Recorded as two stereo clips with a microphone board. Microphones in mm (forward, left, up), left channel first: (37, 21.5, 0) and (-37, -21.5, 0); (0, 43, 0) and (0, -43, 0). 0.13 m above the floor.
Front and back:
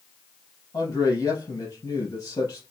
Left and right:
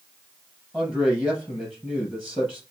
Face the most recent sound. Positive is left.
turn(degrees=-20)